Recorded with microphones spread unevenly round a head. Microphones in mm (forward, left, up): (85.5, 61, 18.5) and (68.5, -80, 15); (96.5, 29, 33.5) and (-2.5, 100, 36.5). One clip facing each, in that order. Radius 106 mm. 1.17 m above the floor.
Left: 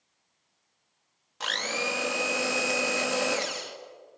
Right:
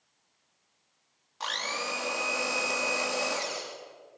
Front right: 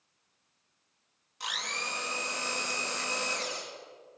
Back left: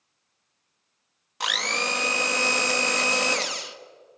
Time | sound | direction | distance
1.4 | a blender | 140° left | 1.3 m